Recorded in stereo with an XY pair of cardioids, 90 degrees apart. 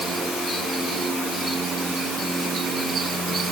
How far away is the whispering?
No whispering in this recording.